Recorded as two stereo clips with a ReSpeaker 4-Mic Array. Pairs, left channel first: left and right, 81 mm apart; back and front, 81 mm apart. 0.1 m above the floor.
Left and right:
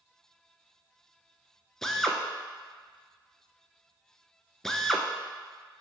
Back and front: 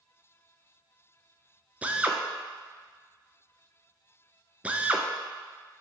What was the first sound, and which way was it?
A drill, 15° left.